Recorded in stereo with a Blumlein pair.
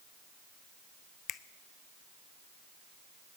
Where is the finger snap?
30° left, 0.7 m.